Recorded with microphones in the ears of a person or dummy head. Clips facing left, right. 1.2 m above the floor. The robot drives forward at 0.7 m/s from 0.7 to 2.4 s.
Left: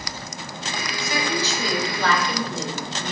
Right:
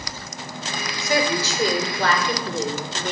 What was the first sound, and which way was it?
A woman speaking, 35° right (ahead or behind).